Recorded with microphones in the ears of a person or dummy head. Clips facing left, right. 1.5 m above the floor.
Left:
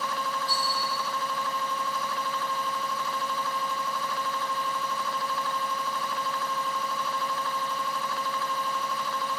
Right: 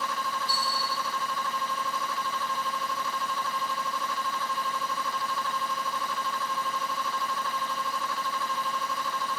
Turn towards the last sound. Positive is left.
turn(degrees=5)  # may be behind; listen again after turning